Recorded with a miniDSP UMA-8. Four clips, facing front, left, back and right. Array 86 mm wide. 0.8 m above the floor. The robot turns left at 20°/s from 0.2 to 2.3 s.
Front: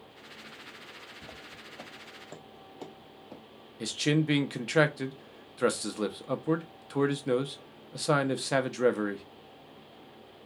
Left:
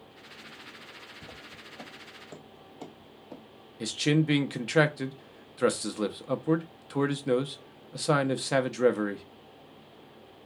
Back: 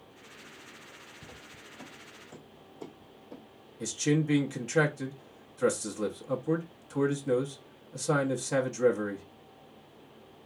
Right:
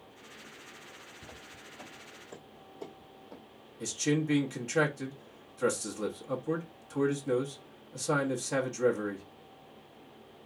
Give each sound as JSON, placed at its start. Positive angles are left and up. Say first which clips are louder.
{"t": 1.2, "sound": "footsteps", "louder": "left 2 dB, front 2 dB", "azimuth_deg": 40, "distance_m": 2.0}
{"t": 3.8, "sound": "a man speaking", "louder": "left 4 dB, even", "azimuth_deg": 50, "distance_m": 0.6}